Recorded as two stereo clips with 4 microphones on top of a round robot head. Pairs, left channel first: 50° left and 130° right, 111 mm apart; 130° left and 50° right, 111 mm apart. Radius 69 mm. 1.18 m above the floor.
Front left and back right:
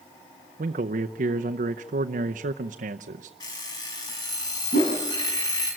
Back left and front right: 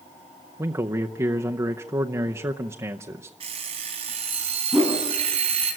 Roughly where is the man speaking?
Behind right.